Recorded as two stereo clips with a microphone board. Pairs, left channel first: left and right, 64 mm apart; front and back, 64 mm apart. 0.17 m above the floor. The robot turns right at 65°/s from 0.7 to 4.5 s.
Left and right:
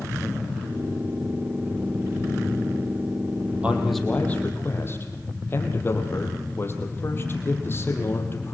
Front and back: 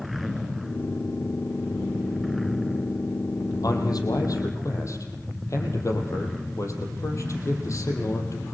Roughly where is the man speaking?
Ahead.